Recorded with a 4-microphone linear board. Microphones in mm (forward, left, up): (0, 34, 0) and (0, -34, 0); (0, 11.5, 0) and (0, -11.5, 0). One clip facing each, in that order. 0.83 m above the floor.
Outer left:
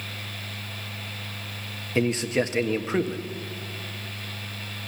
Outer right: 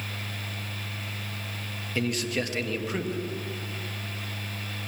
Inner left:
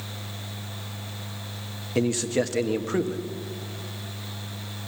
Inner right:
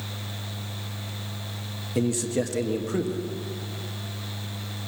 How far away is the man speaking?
About 1.3 m.